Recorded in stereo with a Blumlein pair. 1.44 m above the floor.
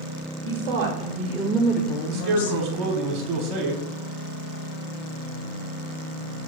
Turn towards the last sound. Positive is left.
turn(degrees=-30)